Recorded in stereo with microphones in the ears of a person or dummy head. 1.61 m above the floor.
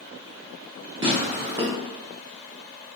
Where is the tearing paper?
25° right (ahead or behind), 0.5 m.